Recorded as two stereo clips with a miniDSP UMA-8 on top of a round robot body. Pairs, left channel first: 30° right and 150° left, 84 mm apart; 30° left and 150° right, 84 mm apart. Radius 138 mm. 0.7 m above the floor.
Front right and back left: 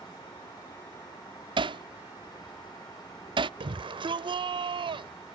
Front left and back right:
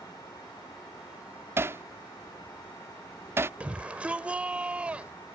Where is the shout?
135° left.